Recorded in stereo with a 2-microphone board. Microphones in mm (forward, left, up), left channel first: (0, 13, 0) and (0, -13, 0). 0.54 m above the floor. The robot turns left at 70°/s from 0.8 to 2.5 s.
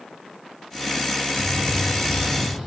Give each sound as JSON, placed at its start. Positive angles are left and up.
{"t": 1.4, "sound": "a bird", "azimuth_deg": 145, "distance_m": 5.0}